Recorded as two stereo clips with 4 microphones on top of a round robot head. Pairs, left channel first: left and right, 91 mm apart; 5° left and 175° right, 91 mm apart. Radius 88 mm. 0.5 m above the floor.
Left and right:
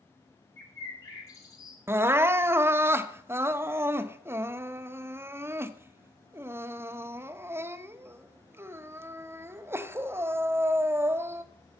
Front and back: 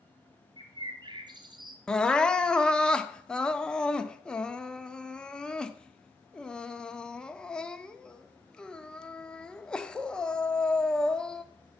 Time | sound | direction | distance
0.6 | a bird | 150° left | 2 m
1.9 | crying | 65° right | 1.0 m